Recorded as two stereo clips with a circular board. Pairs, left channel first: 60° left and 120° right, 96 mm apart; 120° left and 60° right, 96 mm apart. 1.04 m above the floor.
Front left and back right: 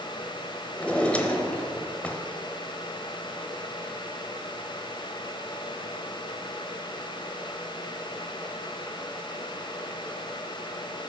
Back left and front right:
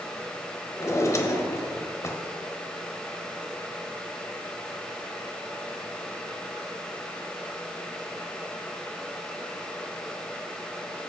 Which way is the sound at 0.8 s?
125° left.